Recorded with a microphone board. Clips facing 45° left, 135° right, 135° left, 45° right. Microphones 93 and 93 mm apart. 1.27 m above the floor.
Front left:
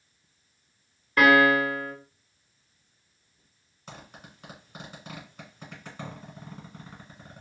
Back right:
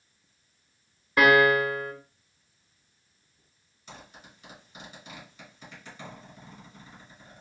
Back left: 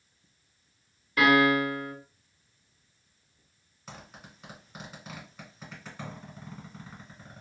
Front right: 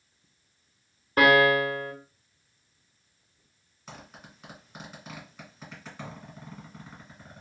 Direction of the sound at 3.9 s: 50° left.